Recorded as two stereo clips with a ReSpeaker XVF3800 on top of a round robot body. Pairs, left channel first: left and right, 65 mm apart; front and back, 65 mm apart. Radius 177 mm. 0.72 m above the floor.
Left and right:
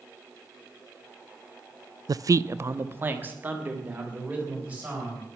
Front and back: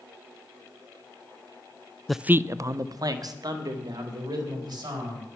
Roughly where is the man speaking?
Right.